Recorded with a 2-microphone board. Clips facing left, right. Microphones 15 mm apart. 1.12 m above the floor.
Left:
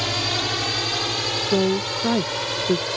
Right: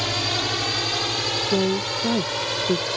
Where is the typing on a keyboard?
No typing on a keyboard in this recording.